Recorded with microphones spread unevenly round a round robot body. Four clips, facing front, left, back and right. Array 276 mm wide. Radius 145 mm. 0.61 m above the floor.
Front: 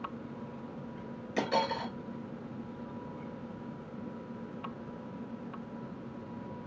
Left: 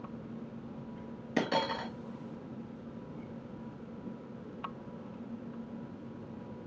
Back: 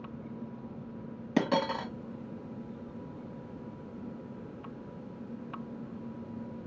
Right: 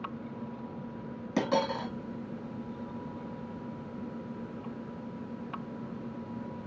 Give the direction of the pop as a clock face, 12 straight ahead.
No pop in this recording.